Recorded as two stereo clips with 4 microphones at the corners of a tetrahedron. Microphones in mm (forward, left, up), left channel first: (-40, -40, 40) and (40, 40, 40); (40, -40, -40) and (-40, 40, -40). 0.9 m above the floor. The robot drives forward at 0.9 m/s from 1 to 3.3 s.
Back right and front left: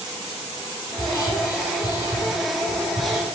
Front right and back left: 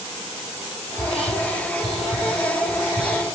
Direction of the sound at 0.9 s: 70° right.